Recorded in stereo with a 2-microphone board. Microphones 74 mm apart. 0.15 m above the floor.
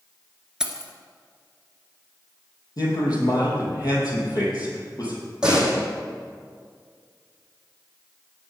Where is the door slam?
10° right (ahead or behind), 5 m.